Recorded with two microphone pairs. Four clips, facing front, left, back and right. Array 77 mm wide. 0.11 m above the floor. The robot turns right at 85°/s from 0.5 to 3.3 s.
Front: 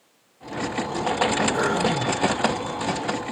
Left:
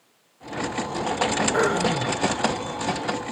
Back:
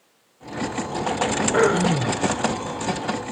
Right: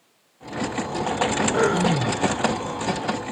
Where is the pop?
No pop in this recording.